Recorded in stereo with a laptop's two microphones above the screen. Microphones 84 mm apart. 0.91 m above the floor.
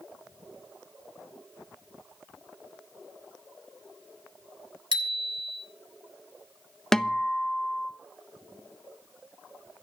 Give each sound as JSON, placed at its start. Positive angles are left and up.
{"t": 4.9, "sound": "a bicycle bell", "side_deg": -75, "distance_m": 3.0}
{"t": 6.9, "sound": "a guitar", "side_deg": 5, "distance_m": 1.0}